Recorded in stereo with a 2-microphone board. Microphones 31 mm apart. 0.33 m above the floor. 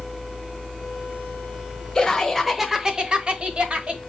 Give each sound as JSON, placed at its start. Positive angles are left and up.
{"t": 1.9, "sound": "laughter", "side_deg": 15, "distance_m": 1.2}